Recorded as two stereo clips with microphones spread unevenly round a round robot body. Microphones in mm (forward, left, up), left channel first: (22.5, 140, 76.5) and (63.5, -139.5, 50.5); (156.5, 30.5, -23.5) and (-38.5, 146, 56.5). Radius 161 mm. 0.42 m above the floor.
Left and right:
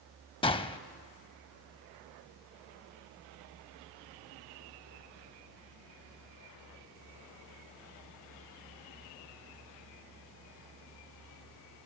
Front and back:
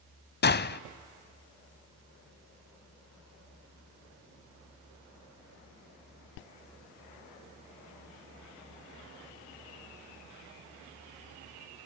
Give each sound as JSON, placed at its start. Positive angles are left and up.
{"t": 0.4, "sound": "a gunshot", "azimuth_deg": 25, "distance_m": 0.6}